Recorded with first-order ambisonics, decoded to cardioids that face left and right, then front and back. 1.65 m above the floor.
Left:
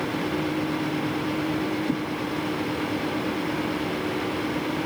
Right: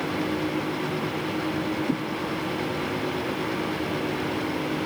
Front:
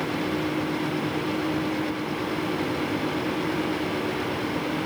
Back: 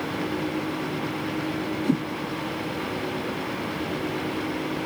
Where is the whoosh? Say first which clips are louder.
Even, back 3 dB; 175° right.